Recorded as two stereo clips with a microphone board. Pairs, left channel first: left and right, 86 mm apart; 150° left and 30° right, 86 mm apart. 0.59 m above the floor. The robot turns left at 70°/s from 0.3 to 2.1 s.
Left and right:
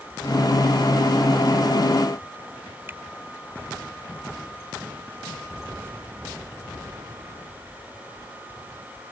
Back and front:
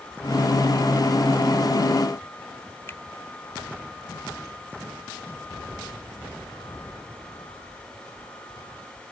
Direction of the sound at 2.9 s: 150° right.